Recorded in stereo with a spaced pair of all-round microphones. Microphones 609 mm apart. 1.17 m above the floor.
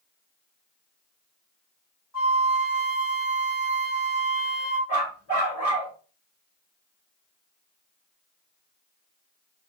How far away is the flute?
About 1.7 m.